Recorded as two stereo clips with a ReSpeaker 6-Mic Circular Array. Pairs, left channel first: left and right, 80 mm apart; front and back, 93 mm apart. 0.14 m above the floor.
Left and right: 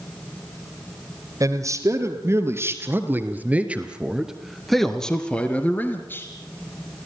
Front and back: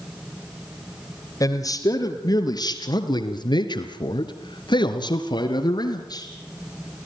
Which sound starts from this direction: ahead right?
A man speaking, at 1.4 s.